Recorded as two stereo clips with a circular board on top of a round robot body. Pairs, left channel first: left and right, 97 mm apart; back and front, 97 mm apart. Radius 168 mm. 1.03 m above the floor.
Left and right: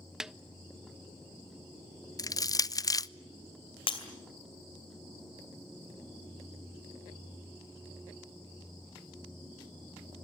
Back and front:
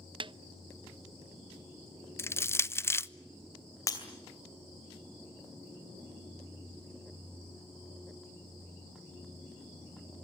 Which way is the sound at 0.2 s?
5° right.